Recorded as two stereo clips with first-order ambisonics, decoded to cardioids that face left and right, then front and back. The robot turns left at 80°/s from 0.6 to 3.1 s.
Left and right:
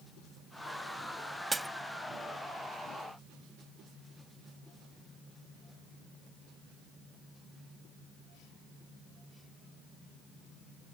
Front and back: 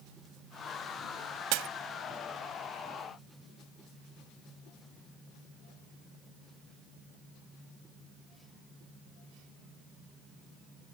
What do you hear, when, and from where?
1.5 s breaking glass: 170° right; by 1.7 s 175° left